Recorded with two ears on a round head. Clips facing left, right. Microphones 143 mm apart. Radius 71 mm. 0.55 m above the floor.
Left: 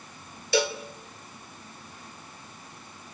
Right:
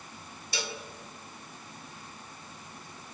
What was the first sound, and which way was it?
A cowbell, 55° left (ahead or behind).